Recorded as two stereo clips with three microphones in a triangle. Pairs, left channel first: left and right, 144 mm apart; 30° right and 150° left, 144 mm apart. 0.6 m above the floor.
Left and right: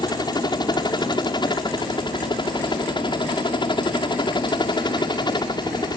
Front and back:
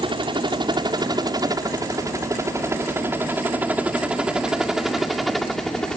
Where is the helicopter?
125° left; by 6.0 s 50° left.